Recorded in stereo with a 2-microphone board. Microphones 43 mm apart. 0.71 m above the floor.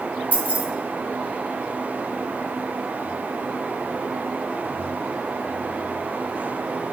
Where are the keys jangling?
45° right (ahead or behind), 0.7 m.